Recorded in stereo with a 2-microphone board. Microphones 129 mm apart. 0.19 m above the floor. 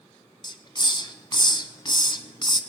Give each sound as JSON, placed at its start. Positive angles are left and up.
{"t": 0.4, "sound": "a hiss", "side_deg": 35, "distance_m": 0.7}